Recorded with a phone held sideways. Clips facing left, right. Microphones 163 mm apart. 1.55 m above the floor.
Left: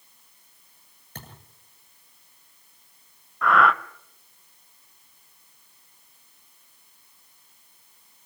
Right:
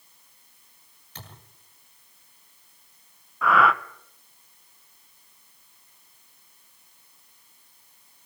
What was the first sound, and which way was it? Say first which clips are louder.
A thud: left 2 dB; 50° left (ahead or behind).